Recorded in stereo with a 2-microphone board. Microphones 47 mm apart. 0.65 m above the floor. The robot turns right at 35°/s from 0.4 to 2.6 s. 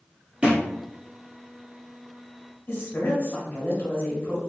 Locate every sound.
0.4 s a thud: 25° right (ahead or behind), 1.7 m; by 0.7 s 35° right (ahead or behind), 1.7 m
2.7 s a woman speaking: 50° left (ahead or behind), 1.6 m